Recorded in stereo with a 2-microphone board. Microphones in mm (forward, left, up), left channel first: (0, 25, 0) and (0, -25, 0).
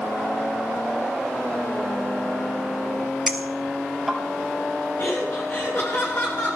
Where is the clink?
5° right (ahead or behind), 2.5 m.